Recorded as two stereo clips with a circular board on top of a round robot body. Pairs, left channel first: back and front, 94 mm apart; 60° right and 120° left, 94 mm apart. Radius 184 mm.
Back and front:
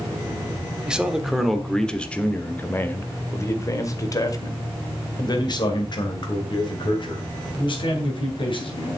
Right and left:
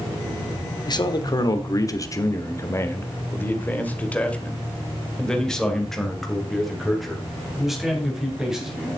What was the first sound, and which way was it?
A man speaking, 80° right.